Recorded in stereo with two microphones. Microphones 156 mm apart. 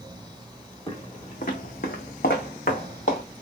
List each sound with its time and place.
0.9 s footsteps: 35° left (ahead or behind), 0.8 m; by 3.2 s 55° left (ahead or behind), 1.2 m